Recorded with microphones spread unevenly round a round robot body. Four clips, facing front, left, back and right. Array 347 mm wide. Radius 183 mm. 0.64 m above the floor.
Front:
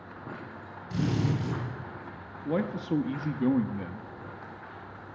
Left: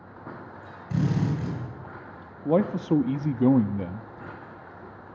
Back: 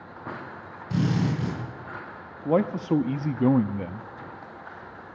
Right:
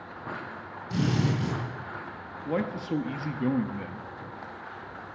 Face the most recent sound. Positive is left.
turn(degrees=115)